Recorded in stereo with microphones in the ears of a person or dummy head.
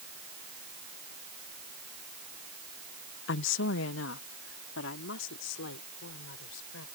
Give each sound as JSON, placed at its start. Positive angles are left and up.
{"t": 3.3, "sound": "a woman speaking", "side_deg": 65}